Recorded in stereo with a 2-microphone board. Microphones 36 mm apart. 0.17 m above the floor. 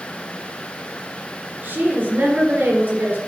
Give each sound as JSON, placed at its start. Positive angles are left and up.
{"t": 1.6, "sound": "a woman speaking", "side_deg": -60, "distance_m": 3.0}